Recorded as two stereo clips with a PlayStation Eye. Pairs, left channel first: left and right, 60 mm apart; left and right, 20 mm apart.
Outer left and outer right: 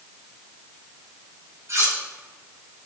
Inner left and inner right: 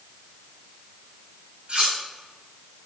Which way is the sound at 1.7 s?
50° right (ahead or behind).